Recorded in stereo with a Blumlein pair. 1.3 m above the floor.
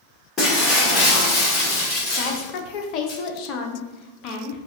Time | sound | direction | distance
0.4 | breaking glass | 20° left | 1.9 m
2.2 | a woman speaking | 40° left | 0.9 m